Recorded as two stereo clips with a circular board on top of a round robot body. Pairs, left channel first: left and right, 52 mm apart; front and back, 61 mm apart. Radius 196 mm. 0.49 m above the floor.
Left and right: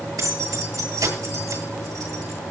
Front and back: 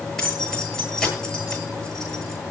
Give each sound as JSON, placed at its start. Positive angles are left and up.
{"t": 0.2, "sound": "keys jangling", "azimuth_deg": -80, "distance_m": 9.5}